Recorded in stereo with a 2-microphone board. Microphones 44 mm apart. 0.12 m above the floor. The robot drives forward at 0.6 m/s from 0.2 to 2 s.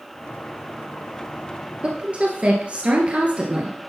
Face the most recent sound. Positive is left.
turn(degrees=-25)  # may be behind; listen again after turning